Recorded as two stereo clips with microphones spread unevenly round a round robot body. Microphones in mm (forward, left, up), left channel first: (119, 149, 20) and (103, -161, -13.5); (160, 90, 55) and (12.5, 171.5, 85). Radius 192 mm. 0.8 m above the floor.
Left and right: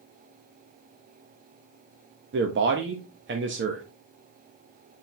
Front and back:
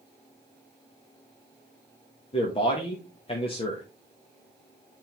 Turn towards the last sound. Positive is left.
turn(degrees=-60)